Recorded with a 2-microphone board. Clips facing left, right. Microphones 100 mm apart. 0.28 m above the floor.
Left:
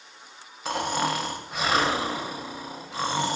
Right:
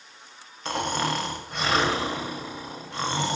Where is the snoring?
5° left (ahead or behind), 0.5 m.